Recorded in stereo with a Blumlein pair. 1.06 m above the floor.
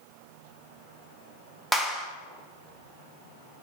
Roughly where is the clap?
Ahead.